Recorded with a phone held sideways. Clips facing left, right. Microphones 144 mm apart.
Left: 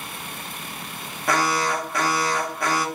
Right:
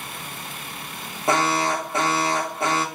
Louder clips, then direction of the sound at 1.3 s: Right 1 dB; 25° right (ahead or behind).